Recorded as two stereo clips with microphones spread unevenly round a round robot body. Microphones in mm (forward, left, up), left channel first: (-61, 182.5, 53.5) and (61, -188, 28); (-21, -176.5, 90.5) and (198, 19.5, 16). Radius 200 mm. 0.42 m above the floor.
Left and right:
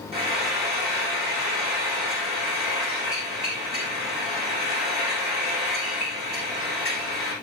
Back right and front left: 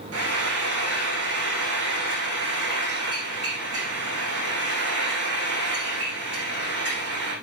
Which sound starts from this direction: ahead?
Frying, at 0.1 s.